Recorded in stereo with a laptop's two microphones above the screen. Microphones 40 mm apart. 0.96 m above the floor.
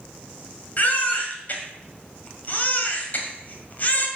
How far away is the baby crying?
About 2 m.